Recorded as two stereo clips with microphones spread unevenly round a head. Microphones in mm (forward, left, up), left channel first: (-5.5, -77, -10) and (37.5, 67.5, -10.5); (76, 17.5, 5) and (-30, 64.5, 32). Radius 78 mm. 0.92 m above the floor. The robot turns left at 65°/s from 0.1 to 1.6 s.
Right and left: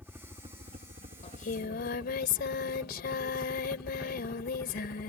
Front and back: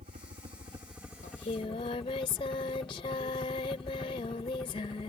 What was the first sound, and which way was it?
A helicopter, 150° left.